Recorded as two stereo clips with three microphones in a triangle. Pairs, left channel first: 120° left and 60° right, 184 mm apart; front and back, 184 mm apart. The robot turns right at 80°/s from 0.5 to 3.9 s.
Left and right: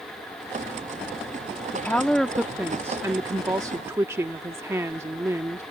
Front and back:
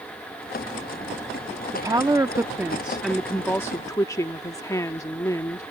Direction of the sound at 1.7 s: 165° left.